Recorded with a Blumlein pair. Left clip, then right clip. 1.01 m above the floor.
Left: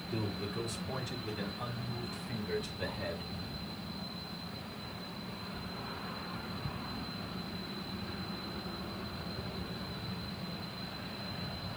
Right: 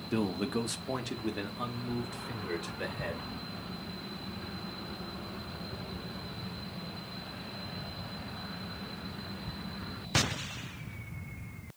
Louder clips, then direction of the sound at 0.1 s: Right 6 dB; 35° right.